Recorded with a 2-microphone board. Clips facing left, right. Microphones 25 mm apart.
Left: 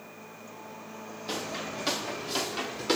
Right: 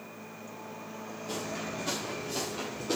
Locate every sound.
1.3 s footsteps: 60° left (ahead or behind), 3.5 m; by 3.0 s 80° left, 3 m